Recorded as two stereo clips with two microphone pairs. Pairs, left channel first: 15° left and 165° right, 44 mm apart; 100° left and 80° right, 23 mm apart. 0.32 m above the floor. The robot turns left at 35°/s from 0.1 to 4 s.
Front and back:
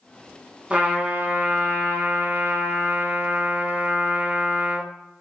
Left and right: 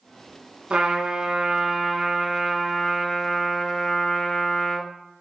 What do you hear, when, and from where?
0.7 s a trumpet: 100° right, 0.6 m; by 4.9 s 145° left, 0.6 m